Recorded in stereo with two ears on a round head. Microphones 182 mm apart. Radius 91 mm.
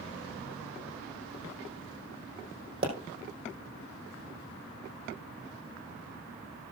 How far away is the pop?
About 4.5 m.